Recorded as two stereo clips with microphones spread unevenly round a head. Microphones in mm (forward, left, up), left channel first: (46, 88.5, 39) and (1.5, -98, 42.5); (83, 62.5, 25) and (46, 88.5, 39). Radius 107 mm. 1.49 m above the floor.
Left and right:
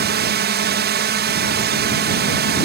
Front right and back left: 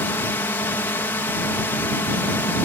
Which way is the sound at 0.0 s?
75° right.